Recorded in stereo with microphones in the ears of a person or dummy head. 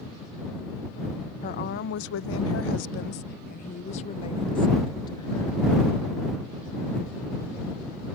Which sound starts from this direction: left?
A woman speaking, at 1.4 s.